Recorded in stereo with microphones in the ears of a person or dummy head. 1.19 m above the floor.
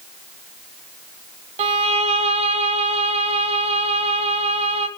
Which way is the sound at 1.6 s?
30° right (ahead or behind).